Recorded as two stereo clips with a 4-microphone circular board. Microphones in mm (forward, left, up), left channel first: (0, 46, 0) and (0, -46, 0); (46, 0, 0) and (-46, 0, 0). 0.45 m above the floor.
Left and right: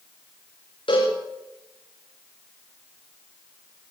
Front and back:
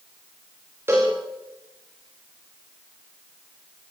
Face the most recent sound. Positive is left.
turn(degrees=115)